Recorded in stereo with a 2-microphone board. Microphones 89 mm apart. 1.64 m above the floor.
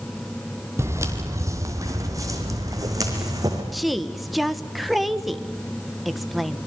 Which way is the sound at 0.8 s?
30° right (ahead or behind).